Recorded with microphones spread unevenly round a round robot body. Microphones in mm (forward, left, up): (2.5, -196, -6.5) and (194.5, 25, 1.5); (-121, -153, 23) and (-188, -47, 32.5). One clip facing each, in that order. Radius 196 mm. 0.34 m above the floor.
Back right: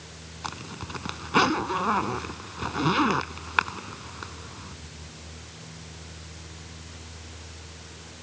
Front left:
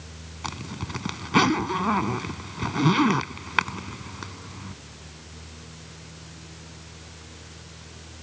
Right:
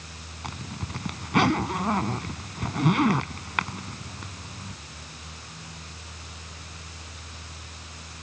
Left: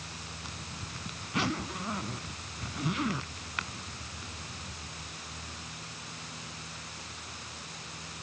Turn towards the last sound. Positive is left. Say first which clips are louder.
# front left 4 dB, right 11 dB
turn(degrees=-5)